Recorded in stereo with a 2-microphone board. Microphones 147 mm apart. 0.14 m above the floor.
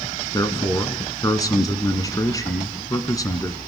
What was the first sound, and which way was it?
A man speaking, 25° left (ahead or behind).